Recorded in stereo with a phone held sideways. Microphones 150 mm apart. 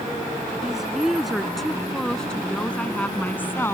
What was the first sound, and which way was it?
A woman speaking, 5° right (ahead or behind).